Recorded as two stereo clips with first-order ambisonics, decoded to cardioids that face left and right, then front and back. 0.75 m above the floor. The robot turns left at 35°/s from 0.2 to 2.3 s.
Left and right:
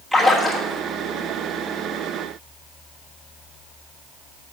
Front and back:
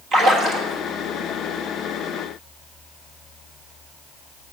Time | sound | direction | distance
0.1 | a splash | 175° right | 1.3 m